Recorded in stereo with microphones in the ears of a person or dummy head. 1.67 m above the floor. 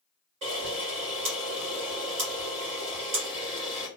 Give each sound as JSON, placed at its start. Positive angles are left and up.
{"t": 0.4, "sound": "a camera shutter", "side_deg": -30, "distance_m": 1.3}